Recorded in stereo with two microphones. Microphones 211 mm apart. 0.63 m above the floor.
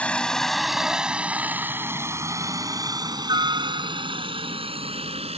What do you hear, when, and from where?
0.0 s a helicopter: 5° left (ahead or behind); by 5.4 s 30° right (ahead or behind)